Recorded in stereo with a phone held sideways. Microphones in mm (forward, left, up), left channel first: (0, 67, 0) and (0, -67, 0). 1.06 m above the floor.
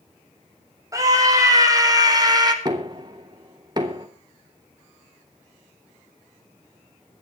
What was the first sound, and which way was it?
A scream, 25° right (ahead or behind).